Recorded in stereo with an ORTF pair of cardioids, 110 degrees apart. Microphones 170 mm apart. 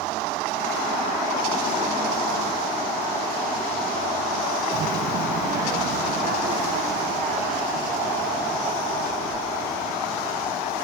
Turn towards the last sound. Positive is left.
turn(degrees=-55)